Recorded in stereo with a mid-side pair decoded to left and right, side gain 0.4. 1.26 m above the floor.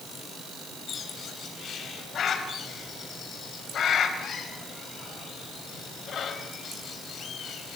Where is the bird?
65° left, 3.5 m.